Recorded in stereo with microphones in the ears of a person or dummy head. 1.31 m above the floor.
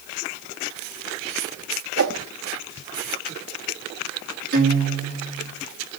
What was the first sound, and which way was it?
A whoosh, 65° right (ahead or behind).